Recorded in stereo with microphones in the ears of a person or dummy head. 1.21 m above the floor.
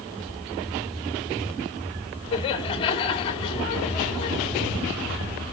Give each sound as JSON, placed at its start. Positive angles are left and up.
{"t": 2.3, "sound": "laughter", "side_deg": 25, "distance_m": 2.5}